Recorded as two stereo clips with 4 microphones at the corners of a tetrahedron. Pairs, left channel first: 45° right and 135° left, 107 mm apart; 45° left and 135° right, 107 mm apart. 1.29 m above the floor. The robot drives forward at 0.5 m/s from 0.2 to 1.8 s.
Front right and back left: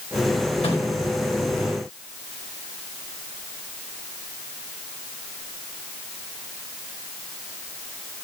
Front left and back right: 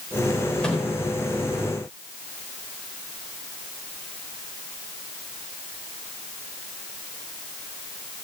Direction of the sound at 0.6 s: 35° right.